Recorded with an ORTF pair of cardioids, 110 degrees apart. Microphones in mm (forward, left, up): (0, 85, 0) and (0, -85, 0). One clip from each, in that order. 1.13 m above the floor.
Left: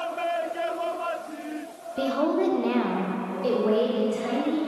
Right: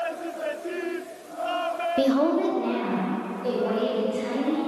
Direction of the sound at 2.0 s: 25° right.